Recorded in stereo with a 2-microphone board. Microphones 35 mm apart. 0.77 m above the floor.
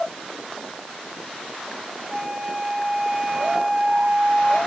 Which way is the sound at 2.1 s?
10° right (ahead or behind).